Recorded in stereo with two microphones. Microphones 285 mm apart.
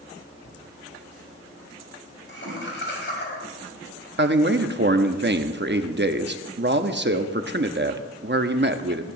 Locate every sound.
0.5 s laughter: 50° left (ahead or behind), 4 m; by 3.4 s 40° left (ahead or behind), 5.5 m
2.4 s a whoosh: 50° right (ahead or behind), 7 m
4.2 s a man speaking: 40° right (ahead or behind), 0.8 m